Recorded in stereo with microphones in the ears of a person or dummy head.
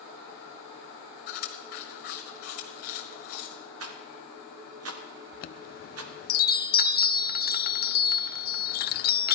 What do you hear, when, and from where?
1.3 s chewing: 45° left (ahead or behind), 1.6 m
3.8 s a rattle: 75° right (ahead or behind), 1.2 m
5.3 s a chime: 50° left (ahead or behind), 0.5 m